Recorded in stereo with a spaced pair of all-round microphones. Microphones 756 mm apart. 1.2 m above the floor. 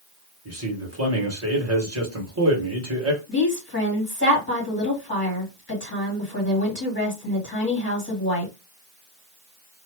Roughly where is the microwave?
I don't hear a microwave.